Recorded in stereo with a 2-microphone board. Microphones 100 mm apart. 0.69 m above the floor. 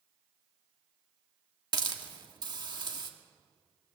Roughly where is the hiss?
Right.